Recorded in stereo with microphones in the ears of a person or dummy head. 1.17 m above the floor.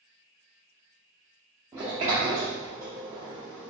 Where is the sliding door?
5° right (ahead or behind), 0.8 m.